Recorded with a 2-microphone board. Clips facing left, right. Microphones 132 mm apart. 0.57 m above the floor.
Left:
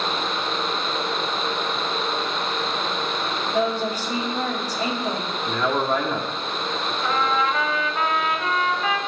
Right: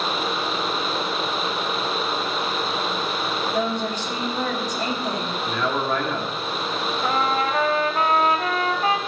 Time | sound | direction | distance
3.5 | a woman speaking | 10° left (ahead or behind) | 2 m
5.5 | a man speaking | 10° left (ahead or behind) | 1.0 m
7.0 | a trumpet | 35° right (ahead or behind) | 0.9 m